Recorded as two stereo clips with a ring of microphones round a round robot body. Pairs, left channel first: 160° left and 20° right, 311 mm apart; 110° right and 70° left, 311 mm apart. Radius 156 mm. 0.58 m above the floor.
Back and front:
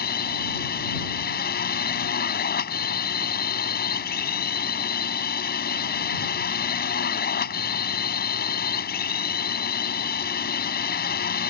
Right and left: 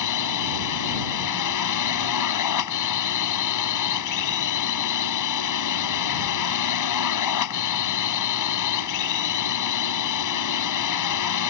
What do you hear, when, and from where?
0.0 s a drone: 140° right